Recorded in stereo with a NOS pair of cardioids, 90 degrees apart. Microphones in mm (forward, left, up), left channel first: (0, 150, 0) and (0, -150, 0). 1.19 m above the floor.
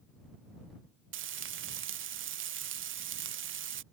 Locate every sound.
1.1 s frying: 45° right